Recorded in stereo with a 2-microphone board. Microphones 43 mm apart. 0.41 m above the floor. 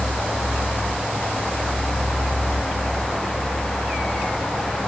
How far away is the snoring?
No snoring in this recording.